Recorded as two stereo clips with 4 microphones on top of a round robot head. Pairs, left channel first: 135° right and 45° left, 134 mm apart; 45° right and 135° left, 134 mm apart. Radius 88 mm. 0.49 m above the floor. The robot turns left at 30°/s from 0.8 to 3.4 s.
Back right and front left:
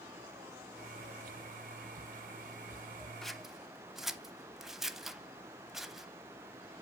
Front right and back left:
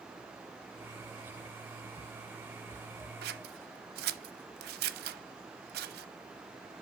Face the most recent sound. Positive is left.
turn(degrees=130)